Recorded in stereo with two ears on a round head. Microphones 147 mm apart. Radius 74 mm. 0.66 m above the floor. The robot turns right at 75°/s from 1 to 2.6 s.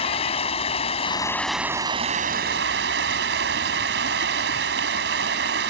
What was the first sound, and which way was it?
Running water, 140° left.